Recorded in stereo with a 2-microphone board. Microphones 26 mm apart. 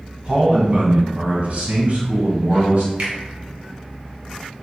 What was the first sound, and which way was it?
A man speaking, 50° right (ahead or behind).